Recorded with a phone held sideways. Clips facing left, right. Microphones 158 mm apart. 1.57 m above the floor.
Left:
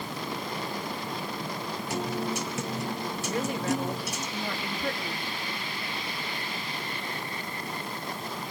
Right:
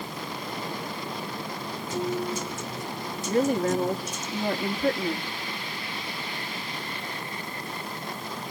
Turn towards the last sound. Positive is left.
turn(degrees=-45)  # may be behind; listen again after turning